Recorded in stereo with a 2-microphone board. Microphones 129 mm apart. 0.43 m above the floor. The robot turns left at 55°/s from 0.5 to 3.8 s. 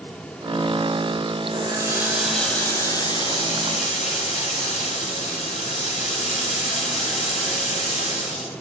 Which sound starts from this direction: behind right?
A running tap, at 1.5 s.